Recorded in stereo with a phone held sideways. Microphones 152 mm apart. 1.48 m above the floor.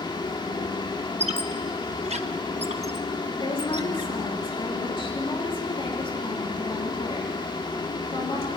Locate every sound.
0.0 s a fan: 30° left (ahead or behind), 1.9 m
1.2 s a squeak: 45° right (ahead or behind), 1.0 m
3.4 s a woman speaking: 35° left (ahead or behind), 3.5 m